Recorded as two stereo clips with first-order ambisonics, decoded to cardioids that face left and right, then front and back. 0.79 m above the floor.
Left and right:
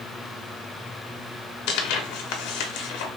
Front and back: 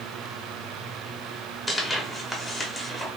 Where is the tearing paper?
80° left, 0.8 m.